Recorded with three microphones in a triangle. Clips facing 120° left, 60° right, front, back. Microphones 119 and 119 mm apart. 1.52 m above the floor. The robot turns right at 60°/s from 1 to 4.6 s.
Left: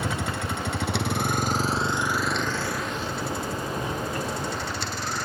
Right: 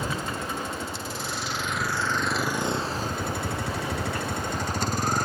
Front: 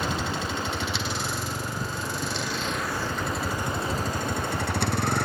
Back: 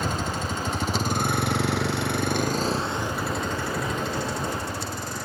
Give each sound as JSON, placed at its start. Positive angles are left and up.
{"t": 0.0, "sound": "a vehicle", "azimuth_deg": 135}